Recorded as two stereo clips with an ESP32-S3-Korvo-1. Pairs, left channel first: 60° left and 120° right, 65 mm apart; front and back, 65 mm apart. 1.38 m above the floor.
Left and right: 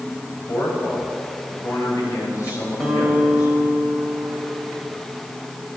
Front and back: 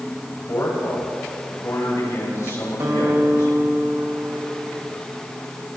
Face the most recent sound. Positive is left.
turn(degrees=150)